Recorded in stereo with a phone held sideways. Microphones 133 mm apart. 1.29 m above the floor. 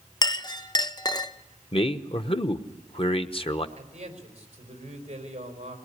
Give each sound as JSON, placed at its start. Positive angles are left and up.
{"t": 0.2, "sound": "a clink", "side_deg": 30, "distance_m": 0.7}
{"t": 1.7, "sound": "a man speaking", "side_deg": 45, "distance_m": 1.0}
{"t": 3.8, "sound": "a man speaking", "side_deg": -55, "distance_m": 4.5}